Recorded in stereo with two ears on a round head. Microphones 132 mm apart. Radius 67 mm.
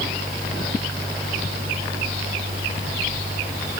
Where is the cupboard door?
I don't hear a cupboard door.